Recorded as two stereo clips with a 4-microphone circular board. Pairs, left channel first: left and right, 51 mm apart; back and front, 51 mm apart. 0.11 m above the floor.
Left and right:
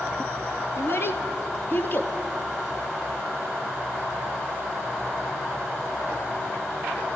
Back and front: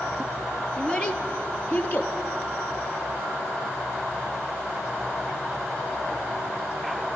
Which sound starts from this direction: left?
A child speaking, at 0.8 s.